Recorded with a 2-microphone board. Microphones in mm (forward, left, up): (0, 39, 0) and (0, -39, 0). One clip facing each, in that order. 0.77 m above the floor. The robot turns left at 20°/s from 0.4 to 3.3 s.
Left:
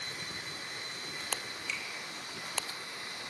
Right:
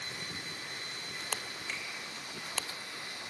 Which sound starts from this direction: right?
A finger snap, at 1.7 s.